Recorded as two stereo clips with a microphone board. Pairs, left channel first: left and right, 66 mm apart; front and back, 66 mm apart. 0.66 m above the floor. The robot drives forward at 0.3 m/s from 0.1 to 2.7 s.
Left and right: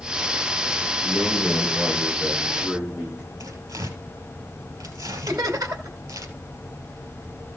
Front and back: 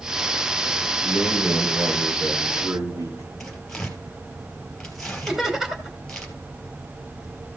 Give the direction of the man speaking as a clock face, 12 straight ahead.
5 o'clock.